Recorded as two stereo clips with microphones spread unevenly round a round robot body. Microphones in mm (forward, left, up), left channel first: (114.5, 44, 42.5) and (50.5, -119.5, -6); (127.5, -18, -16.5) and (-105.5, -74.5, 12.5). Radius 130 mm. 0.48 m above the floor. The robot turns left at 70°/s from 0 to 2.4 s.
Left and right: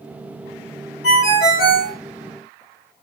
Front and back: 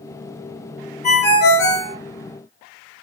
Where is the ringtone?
75° left, 1.7 m; by 1.9 s 10° left, 1.7 m.